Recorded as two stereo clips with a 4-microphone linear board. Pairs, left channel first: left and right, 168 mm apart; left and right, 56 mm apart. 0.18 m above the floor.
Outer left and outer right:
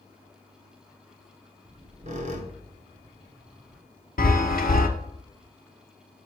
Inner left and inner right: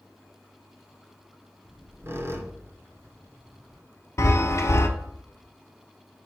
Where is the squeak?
50° right (ahead or behind), 1.0 m.